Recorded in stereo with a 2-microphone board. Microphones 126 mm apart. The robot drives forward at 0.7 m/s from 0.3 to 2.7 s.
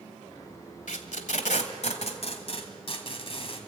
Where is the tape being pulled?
90° left, 1.5 m; by 3.6 s 50° left (ahead or behind), 2.0 m.